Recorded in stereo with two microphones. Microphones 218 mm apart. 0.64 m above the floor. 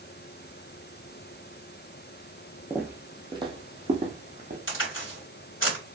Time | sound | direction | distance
2.7 | footsteps | 5° right (ahead or behind) | 1.2 m
4.7 | a crack | 70° left (ahead or behind) | 3 m